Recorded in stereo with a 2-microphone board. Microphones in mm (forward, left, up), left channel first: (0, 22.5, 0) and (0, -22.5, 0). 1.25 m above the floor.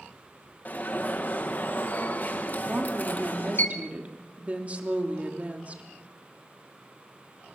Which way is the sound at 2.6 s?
30° right (ahead or behind).